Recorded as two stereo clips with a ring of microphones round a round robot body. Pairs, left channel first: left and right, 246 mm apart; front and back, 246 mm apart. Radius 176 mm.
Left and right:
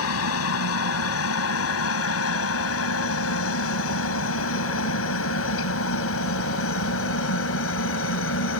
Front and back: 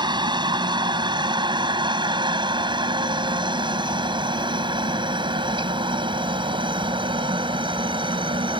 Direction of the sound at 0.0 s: 110° left.